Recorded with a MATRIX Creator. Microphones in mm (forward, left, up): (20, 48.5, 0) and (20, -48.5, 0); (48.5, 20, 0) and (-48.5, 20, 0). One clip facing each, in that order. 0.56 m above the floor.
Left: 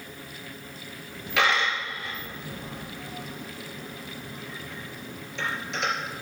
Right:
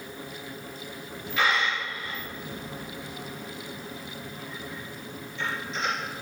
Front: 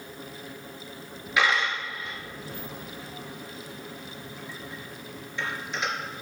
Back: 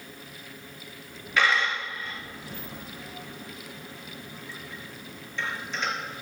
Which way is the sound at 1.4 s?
75° left.